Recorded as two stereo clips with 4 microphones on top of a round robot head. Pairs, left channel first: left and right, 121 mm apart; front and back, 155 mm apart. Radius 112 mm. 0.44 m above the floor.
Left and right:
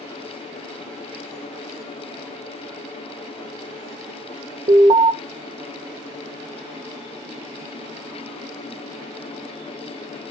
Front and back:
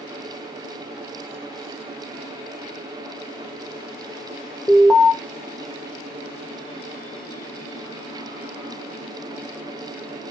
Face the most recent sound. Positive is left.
turn(degrees=-80)